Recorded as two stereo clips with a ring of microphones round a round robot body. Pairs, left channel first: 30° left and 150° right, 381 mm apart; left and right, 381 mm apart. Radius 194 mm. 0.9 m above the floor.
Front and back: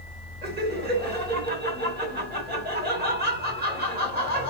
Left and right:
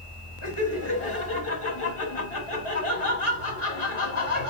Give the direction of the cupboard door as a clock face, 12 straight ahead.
I don't hear a cupboard door.